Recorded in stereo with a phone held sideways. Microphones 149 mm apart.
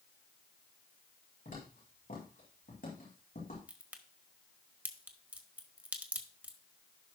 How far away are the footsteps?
About 6 m.